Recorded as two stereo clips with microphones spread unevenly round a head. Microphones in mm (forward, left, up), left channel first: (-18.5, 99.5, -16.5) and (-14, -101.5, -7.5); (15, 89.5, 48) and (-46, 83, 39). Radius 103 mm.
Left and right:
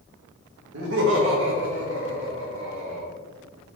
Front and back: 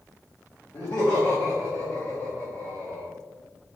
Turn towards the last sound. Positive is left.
turn(degrees=-55)